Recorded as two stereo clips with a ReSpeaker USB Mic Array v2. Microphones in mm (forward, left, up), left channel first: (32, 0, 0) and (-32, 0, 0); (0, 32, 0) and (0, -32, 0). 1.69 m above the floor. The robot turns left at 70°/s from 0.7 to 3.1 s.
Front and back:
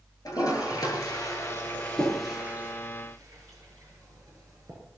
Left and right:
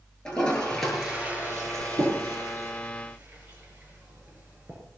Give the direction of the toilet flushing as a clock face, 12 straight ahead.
12 o'clock.